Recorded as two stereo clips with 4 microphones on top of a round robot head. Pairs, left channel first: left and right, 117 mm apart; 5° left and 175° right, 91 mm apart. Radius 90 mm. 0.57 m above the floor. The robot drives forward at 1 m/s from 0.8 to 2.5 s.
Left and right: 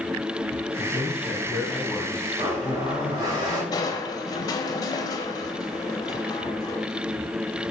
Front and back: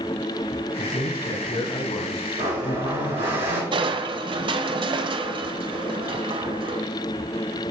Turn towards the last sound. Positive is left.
turn(degrees=155)